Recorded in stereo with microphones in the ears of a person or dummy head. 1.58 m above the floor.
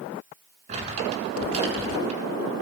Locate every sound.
0.7 s crumpling: 40° right (ahead or behind), 7 m